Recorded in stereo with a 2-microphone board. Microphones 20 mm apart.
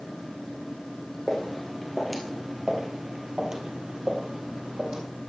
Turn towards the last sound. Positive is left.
turn(degrees=-50)  # may be behind; listen again after turning